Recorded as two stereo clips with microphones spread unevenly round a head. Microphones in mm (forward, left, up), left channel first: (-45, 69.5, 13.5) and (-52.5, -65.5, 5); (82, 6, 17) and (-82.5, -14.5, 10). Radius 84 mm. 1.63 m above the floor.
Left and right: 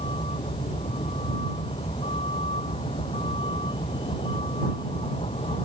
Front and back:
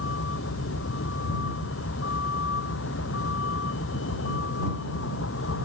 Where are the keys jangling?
I don't hear keys jangling.